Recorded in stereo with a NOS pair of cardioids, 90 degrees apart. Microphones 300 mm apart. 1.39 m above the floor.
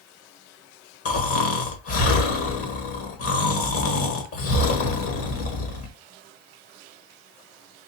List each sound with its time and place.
1.1 s snoring: 55° left, 1.2 m